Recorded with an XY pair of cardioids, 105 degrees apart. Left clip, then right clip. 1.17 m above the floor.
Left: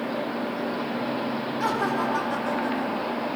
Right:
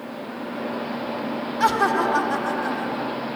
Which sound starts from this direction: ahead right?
Laughter, at 1.6 s.